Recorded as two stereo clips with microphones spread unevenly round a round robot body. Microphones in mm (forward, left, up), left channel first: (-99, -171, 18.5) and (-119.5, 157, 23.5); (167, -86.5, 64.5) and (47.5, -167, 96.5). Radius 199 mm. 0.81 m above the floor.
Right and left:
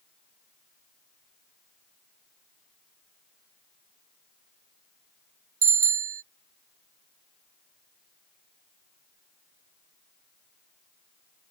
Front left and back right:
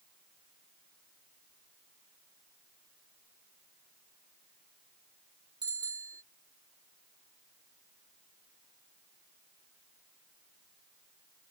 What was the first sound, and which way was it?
A bicycle bell, 140° left.